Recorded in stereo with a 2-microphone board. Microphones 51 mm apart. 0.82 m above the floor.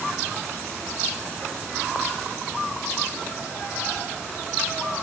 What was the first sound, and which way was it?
Only background noise.